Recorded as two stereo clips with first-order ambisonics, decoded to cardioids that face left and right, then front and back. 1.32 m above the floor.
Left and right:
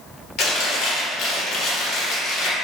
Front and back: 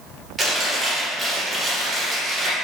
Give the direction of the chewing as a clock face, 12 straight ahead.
9 o'clock.